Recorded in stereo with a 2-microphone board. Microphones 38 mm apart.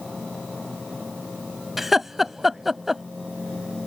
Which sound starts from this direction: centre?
Laughter, at 1.8 s.